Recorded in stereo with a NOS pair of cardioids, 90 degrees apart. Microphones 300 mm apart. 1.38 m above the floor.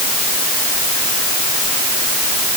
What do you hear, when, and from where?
Only background noise.